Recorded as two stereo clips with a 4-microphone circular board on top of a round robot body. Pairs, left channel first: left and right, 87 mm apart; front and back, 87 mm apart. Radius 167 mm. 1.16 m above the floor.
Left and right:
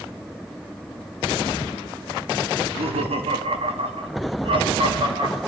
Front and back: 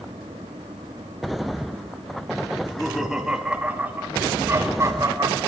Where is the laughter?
85° right, 3 m; by 5.4 s 130° right, 4 m.